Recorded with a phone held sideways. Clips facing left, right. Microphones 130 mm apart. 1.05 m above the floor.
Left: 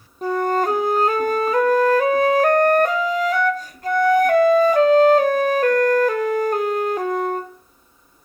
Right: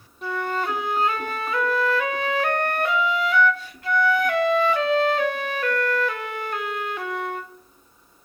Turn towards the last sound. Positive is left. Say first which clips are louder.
# left 7 dB
turn(degrees=40)  # may be behind; listen again after turning